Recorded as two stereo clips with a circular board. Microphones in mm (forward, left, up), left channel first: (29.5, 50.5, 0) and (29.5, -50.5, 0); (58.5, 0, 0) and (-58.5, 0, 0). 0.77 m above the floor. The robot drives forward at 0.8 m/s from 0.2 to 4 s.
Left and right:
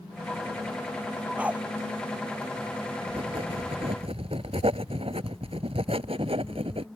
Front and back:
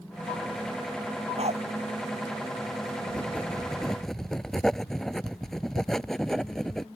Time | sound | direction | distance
1.4 | a dog barking | 165° right | ?
3.1 | writing | 75° right | ?